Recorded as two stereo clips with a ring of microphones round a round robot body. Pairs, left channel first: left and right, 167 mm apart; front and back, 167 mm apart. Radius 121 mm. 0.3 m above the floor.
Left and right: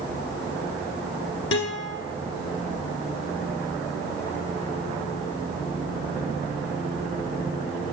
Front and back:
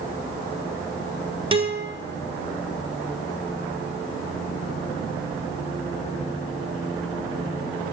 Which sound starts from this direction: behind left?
A guitar, at 1.5 s.